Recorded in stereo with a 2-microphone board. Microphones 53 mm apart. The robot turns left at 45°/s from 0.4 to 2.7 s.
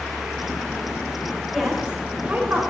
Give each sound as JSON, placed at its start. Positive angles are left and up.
{"t": 1.5, "sound": "a woman speaking", "azimuth_deg": 0, "distance_m": 3.0}